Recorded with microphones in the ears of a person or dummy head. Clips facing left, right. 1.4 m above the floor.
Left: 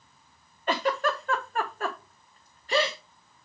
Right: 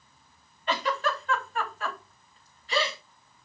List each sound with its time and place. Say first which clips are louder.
0.7 s a giggle: left 2 dB; 40° left (ahead or behind), 1.2 m